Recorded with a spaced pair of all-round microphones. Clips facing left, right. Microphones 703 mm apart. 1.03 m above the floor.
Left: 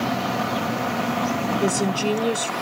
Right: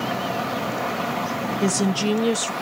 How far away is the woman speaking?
About 0.7 m.